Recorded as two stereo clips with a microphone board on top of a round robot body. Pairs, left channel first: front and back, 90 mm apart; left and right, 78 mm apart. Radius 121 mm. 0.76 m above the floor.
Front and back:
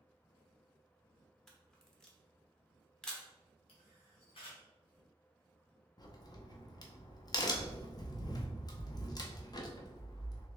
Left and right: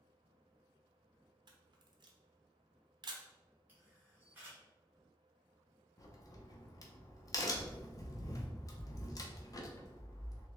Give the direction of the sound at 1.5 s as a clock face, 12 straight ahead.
3 o'clock.